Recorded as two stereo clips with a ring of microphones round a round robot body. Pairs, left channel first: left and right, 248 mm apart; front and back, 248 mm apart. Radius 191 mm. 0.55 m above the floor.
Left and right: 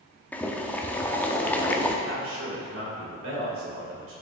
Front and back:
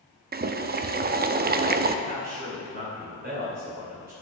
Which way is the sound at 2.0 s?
120° right.